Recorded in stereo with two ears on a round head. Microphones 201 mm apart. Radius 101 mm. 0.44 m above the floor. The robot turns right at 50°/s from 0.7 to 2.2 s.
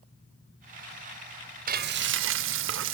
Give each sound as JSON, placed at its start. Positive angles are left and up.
{"t": 1.7, "sound": "frying", "side_deg": -35, "distance_m": 0.7}